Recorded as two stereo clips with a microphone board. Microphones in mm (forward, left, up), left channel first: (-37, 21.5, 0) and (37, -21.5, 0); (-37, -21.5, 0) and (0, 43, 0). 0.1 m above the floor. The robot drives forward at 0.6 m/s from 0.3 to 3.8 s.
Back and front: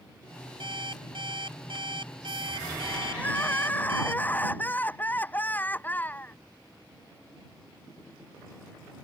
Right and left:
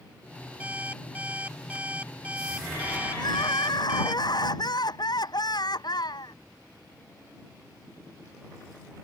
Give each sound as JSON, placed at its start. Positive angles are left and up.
{"t": 0.6, "sound": "an alarm clock", "azimuth_deg": -10}
{"t": 3.1, "sound": "crying", "azimuth_deg": -140}